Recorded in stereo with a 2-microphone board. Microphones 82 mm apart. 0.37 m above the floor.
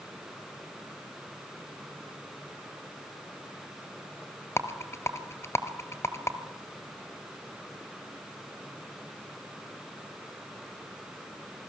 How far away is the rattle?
About 1.2 m.